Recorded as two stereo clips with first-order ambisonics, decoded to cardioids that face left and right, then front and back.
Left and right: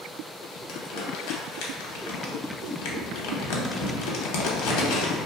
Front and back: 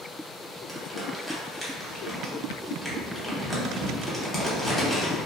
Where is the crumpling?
90° left, 0.6 m.